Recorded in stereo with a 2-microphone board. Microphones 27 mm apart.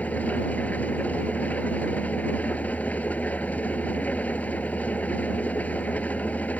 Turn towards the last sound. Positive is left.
turn(degrees=75)  # may be behind; listen again after turning